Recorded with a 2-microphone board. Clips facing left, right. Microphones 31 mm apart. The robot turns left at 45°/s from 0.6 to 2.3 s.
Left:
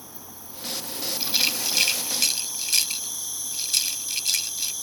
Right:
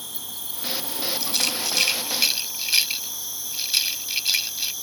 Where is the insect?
85° right; by 4.8 s 165° right.